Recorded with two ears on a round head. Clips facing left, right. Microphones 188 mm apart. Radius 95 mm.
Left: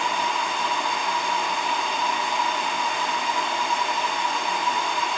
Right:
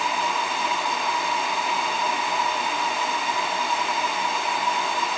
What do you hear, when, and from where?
Only background noise.